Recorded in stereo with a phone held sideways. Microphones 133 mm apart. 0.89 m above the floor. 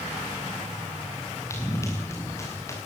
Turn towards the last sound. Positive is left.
turn(degrees=20)  # may be behind; listen again after turning